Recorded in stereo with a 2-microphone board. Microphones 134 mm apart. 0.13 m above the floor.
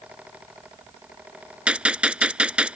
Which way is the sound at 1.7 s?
10° right (ahead or behind).